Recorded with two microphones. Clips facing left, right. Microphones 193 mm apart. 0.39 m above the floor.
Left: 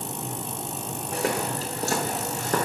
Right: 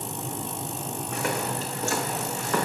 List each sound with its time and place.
1.1 s footsteps: 35° left (ahead or behind), 4.5 m; by 2.6 s 40° left (ahead or behind), 3.5 m